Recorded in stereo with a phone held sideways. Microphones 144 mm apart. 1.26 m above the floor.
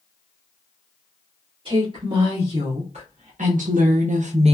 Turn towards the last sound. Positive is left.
turn(degrees=-45)  # may be behind; listen again after turning